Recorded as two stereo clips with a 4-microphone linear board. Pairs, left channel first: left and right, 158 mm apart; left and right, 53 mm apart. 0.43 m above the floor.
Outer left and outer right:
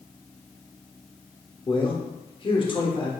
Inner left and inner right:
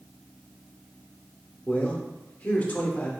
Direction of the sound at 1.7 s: 30° left (ahead or behind).